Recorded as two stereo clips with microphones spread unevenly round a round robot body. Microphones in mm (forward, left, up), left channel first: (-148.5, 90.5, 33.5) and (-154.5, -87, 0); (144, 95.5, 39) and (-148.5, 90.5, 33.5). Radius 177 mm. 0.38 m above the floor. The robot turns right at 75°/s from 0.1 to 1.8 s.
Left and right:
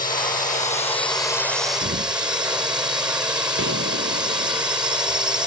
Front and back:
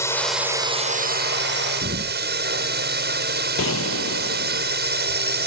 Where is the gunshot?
55° right.